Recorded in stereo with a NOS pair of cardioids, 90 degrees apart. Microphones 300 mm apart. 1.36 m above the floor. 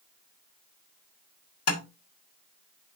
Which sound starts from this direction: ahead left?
Tapping, at 1.7 s.